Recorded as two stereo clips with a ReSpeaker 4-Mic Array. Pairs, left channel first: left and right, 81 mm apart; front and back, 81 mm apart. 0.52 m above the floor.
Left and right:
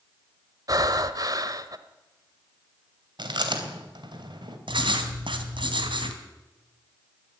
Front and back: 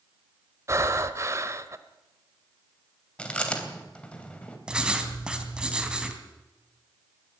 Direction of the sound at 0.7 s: 130° right.